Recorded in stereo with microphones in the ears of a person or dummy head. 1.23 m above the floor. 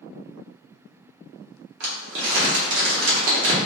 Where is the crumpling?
65° right (ahead or behind), 1.2 m.